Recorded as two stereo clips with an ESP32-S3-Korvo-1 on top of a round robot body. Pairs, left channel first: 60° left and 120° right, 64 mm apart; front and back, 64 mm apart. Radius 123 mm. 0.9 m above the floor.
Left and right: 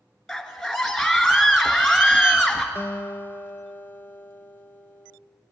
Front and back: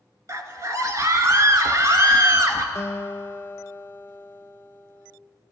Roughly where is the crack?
I don't hear a crack.